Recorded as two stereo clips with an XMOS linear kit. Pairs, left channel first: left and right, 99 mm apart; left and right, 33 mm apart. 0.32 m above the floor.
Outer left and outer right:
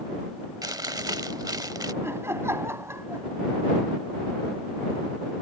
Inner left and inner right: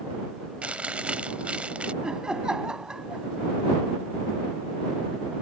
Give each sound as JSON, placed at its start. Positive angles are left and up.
{"t": 0.6, "sound": "chewing", "side_deg": -40}
{"t": 2.0, "sound": "laughter", "side_deg": -25}